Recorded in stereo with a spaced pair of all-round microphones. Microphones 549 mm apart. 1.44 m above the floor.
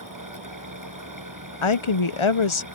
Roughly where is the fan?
Right.